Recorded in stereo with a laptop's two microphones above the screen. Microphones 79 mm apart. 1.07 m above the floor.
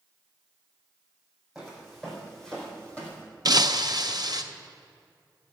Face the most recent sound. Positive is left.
turn(degrees=-55)  # may be behind; listen again after turning